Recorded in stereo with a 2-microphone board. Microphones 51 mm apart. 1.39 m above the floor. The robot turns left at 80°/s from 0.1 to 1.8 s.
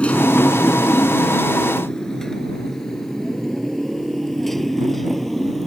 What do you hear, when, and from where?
0.0 s a motorcycle: 20° left (ahead or behind); by 5.7 s centre (ahead or behind)